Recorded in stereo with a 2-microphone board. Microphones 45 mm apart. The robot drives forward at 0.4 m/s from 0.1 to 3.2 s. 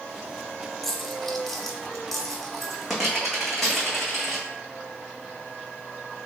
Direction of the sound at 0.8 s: 5° left (ahead or behind).